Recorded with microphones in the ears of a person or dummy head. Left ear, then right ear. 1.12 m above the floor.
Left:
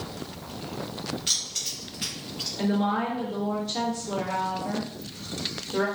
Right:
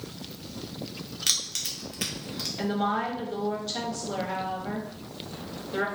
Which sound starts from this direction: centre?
A woman speaking, at 2.6 s.